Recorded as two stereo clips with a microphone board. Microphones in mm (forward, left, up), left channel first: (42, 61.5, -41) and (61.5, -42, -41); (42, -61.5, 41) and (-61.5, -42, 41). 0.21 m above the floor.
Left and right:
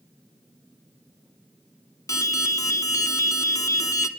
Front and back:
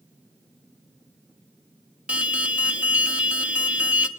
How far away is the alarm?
About 1.3 m.